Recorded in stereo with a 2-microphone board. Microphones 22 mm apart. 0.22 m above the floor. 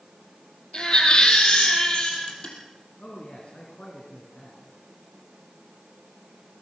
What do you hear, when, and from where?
0.7 s a baby crying: 35° left (ahead or behind), 4.5 m
3.0 s a man speaking: 55° left (ahead or behind), 3.5 m